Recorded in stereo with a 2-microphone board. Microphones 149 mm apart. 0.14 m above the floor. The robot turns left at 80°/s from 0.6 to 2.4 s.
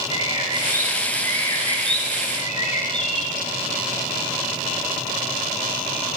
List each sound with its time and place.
0.1 s a bird: 140° right, 2 m; by 3.4 s 75° left, 2 m